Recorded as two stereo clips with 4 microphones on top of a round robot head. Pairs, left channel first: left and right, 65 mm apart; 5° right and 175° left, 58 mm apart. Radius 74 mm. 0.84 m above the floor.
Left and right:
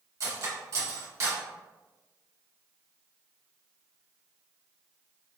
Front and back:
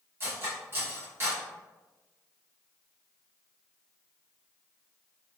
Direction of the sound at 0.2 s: 130° right.